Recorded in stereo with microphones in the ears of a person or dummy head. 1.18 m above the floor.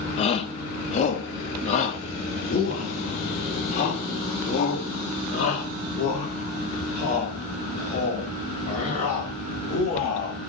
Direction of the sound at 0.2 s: 30° left (ahead or behind).